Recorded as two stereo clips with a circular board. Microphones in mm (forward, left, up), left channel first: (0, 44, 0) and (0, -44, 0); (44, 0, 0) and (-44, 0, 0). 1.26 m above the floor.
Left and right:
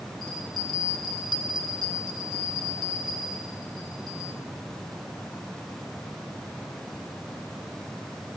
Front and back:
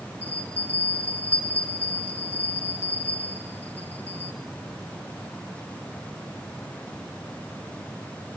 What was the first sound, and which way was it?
A bell, 70° left.